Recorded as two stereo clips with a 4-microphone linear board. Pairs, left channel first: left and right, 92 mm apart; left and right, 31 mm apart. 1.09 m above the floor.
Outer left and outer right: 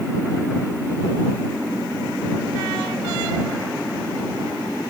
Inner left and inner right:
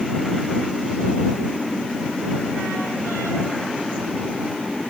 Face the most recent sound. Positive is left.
No sound to turn to.